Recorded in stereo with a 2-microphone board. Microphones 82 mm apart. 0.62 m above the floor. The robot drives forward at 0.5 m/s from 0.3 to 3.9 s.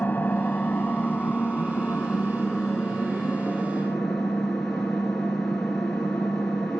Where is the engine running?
20° left (ahead or behind), 1.0 m; by 6.8 s 10° left (ahead or behind), 3 m.